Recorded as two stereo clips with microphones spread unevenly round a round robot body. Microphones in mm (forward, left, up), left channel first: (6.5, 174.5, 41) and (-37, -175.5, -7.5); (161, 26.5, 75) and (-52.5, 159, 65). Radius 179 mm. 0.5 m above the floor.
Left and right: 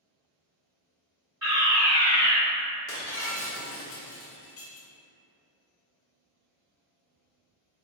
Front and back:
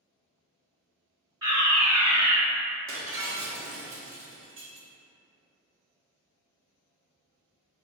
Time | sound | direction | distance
1.4 | a fire alarm | 155° right | 1.9 m
2.9 | breaking glass | 135° left | 0.7 m